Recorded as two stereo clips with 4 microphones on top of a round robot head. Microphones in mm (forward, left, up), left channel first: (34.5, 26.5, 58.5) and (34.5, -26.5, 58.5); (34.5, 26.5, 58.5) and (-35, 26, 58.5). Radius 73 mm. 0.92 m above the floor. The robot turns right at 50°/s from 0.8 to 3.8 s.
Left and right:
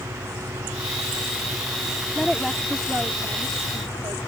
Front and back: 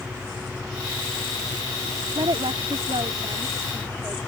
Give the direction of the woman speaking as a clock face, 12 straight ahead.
7 o'clock.